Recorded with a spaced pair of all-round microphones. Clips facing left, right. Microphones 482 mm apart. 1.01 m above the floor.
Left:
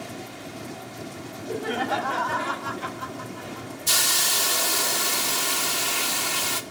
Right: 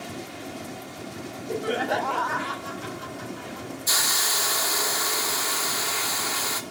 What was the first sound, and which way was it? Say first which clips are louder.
Laughter: right 1 dB; centre (ahead or behind).